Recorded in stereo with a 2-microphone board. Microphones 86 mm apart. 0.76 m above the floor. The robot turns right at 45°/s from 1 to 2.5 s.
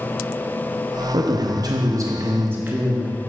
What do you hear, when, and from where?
1.1 s a man speaking: 95° right, 0.6 m; by 3.2 s 30° right, 0.6 m